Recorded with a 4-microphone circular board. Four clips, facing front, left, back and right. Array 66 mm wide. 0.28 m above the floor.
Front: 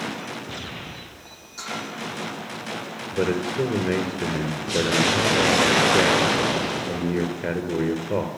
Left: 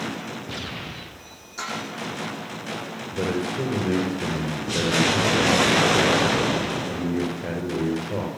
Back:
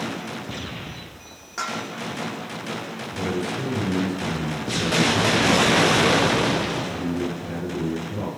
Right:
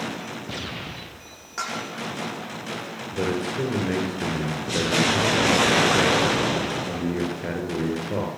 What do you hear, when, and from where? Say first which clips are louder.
1.6 s dishes clattering: right 1 dB, back 4 dB; 135° right, 10 m
3.1 s a man speaking: even, front 4 dB; 10° right, 6 m